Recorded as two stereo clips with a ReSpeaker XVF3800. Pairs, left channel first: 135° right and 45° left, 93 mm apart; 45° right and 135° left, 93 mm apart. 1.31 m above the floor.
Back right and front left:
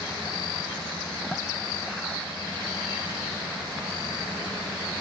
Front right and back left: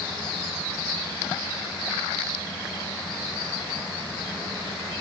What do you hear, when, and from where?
Only background noise.